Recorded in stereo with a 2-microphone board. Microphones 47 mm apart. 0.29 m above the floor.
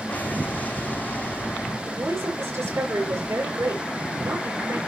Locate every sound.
0.1 s an explosion: 35° left (ahead or behind), 5 m
1.9 s a woman speaking: 75° right (ahead or behind), 7 m